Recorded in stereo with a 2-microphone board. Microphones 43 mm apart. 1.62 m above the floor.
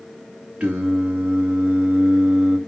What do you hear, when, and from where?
0.6 s singing: 25° right (ahead or behind), 2.5 m